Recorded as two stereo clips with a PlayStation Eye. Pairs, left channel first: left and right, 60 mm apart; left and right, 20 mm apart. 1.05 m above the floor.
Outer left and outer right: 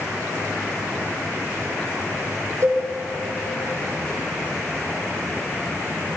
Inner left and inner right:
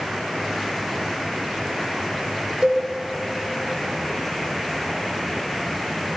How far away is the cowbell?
About 1.5 m.